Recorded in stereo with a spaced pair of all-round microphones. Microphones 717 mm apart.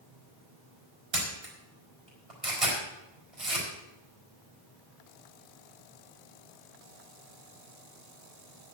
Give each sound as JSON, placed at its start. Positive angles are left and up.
{"t": 1.1, "sound": "a camera shutter", "side_deg": -50, "distance_m": 4.5}